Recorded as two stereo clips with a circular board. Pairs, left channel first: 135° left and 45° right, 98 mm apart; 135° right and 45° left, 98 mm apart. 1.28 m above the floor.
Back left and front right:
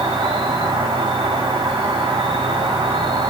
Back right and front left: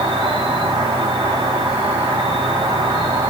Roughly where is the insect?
Ahead.